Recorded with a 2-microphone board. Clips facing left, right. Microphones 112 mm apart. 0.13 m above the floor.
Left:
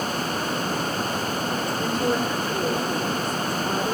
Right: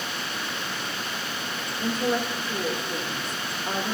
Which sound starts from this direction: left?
A woman speaking, at 1.8 s.